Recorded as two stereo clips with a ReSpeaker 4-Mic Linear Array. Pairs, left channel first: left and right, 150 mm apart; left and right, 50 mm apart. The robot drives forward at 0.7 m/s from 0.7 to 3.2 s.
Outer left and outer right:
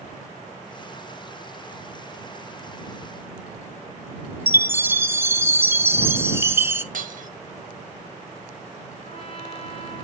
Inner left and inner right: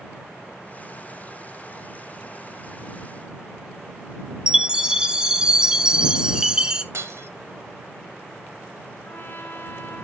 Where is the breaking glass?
75° right (ahead or behind), 0.9 m.